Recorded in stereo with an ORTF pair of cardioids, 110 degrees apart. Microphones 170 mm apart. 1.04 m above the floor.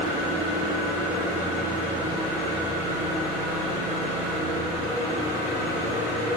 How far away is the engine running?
About 1.7 m.